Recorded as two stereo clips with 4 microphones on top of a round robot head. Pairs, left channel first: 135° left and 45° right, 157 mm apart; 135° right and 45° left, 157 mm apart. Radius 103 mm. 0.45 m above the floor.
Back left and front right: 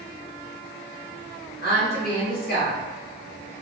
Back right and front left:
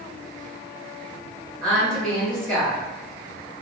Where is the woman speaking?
140° left, 1.8 m.